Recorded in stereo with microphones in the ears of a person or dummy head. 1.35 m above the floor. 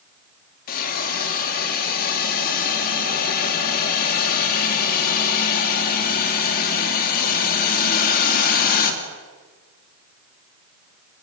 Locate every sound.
0.7 s a hiss: 50° left (ahead or behind), 3 m